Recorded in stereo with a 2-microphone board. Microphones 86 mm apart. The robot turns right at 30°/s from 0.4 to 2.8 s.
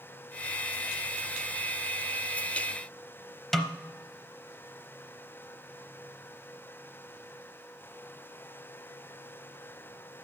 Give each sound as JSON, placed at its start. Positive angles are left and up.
{"t": 3.5, "sound": "a snare drum", "side_deg": 5, "distance_m": 0.7}